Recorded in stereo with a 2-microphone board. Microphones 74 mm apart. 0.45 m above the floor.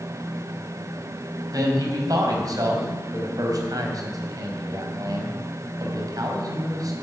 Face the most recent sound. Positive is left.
turn(degrees=-60)  # may be behind; listen again after turning